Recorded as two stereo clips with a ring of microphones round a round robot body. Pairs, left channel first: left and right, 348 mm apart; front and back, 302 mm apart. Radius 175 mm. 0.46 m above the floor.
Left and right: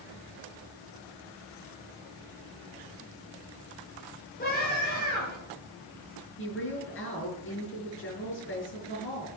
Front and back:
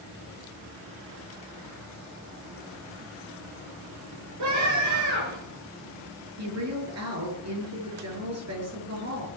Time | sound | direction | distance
4.4 | a scream | 155° left | 10 m
6.4 | a woman speaking | 145° left | 8.5 m